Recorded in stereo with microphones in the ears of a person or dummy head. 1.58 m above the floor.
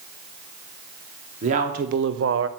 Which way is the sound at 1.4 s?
45° right (ahead or behind).